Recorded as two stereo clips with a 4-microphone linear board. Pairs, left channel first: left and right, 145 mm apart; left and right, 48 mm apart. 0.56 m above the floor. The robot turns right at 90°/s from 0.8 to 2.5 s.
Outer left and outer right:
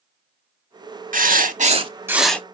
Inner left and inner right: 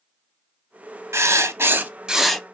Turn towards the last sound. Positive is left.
turn(degrees=20)